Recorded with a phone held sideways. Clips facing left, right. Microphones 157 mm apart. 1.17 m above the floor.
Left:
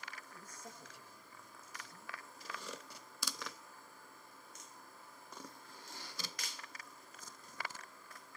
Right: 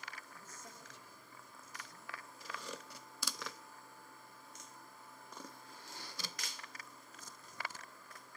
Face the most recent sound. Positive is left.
turn(degrees=0)  # may be behind; listen again after turning